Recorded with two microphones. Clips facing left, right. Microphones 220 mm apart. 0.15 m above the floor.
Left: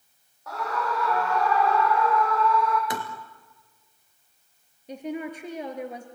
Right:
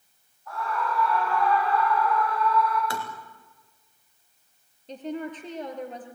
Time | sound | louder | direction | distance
0.5 | a scream | left 1 dB | 70° left (ahead or behind) | 5.5 m
2.9 | tapping | left 2 dB | 20° left (ahead or behind) | 2.5 m
4.9 | a woman speaking | left 1 dB | 10° left (ahead or behind) | 2.5 m